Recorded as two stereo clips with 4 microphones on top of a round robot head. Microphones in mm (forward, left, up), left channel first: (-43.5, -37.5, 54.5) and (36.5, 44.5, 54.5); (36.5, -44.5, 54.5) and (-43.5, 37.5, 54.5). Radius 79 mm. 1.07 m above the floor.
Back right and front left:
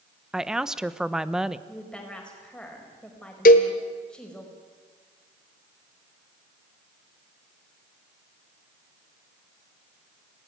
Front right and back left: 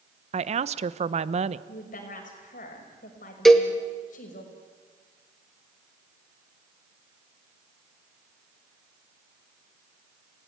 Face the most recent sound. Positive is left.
turn(degrees=-135)